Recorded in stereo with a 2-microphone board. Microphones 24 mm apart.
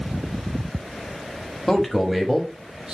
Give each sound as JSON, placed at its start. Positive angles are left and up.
{"t": 1.7, "sound": "a man speaking", "side_deg": 10, "distance_m": 1.1}